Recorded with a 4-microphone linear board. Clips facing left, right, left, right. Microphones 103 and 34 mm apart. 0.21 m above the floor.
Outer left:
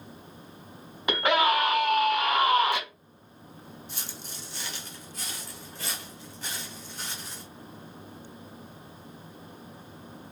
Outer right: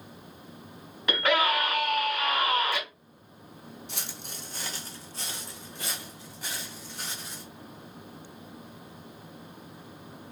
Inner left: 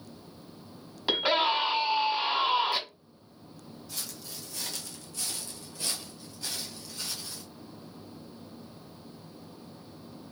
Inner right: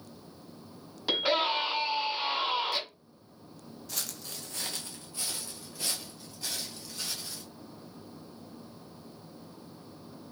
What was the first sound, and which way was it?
A scream, 20° left (ahead or behind).